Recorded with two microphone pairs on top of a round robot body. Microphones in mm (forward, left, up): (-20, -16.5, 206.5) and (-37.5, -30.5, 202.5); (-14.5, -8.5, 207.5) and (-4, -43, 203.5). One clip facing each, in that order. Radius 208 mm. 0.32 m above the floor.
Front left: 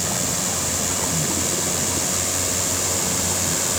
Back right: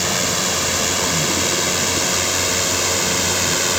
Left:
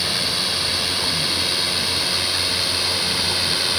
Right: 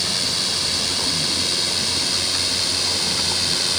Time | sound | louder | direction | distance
0.0 | a drone | back right 5 dB, left 1 dB | straight behind | ?